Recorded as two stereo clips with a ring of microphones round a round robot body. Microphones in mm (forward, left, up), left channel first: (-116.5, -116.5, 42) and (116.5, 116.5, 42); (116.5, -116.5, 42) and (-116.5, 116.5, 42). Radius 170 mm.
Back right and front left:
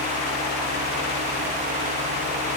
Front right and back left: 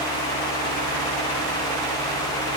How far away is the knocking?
I don't hear knocking.